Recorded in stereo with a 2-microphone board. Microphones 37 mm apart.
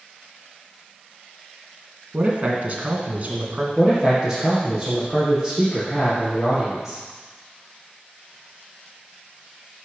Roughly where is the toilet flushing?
I don't hear a toilet flushing.